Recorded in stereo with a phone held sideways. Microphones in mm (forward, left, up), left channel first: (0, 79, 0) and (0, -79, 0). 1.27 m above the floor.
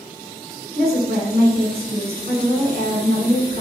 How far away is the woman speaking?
About 1.1 m.